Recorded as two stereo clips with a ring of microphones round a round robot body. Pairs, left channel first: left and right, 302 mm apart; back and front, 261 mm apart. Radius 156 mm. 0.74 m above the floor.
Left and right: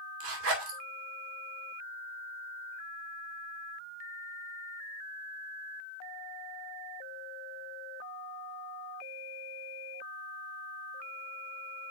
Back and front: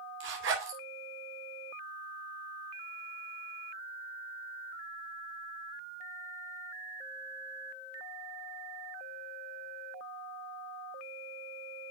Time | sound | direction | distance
0.2 | a zipper | 50° right | 2.5 m